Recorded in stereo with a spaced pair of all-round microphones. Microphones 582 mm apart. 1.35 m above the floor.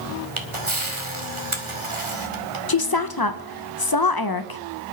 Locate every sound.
0.4 s a camera shutter: 55° right (ahead or behind), 2 m
2.7 s a woman speaking: 40° left (ahead or behind), 0.9 m